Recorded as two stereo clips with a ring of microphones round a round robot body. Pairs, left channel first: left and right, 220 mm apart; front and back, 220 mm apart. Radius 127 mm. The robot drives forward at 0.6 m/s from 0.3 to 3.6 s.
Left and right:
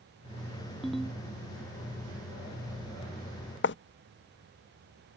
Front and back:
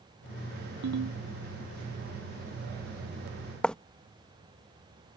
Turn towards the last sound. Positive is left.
turn(degrees=85)